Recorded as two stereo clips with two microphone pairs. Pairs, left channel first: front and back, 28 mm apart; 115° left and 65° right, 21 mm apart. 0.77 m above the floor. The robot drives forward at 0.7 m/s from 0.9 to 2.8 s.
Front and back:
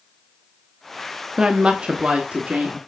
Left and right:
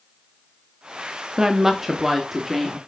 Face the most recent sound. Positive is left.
turn(degrees=-150)